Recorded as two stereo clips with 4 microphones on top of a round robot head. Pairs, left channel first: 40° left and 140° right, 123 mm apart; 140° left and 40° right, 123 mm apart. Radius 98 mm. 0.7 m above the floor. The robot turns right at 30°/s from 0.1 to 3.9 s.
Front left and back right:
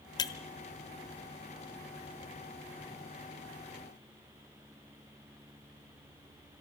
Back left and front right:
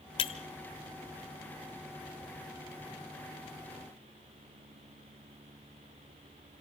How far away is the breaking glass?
About 0.8 m.